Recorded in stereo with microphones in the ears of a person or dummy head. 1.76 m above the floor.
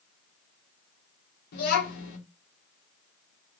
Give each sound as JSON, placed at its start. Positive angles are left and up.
{"t": 1.5, "sound": "a child speaking", "side_deg": 55, "distance_m": 1.3}